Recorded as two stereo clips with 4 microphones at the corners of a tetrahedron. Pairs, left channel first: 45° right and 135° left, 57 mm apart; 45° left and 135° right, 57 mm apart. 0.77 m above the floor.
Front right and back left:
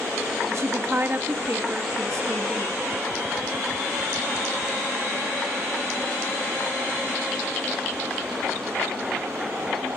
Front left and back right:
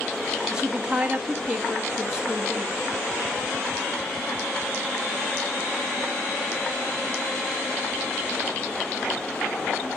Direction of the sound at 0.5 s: 150° left.